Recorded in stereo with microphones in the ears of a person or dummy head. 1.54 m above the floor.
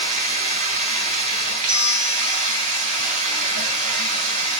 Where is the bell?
30° right (ahead or behind), 0.6 m.